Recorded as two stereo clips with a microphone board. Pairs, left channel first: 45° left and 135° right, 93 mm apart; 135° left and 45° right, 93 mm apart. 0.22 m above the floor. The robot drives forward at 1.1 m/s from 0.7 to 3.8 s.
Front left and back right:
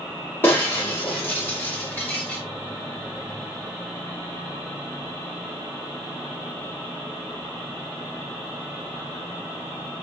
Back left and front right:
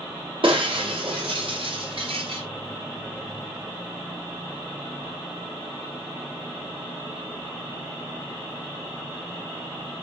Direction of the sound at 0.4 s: 20° right.